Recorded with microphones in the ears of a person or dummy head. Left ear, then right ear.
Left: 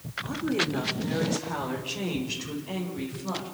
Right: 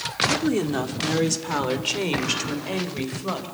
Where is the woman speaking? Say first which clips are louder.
Right 5 dB; 80° right, 2.5 m; by 3.5 s 70° right (ahead or behind), 5 m.